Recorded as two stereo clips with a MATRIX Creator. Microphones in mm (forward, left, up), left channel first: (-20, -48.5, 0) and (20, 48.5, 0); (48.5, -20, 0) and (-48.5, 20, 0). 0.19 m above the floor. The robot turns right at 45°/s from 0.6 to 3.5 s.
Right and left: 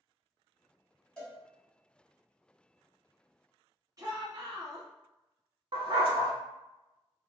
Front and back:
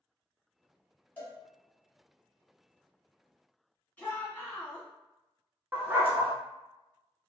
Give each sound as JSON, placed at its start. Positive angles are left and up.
{"t": 1.2, "sound": "a cowbell", "azimuth_deg": -55, "distance_m": 1.3}
{"t": 4.0, "sound": "a shout", "azimuth_deg": 40, "distance_m": 1.4}
{"t": 5.7, "sound": "a dog barking", "azimuth_deg": 90, "distance_m": 0.6}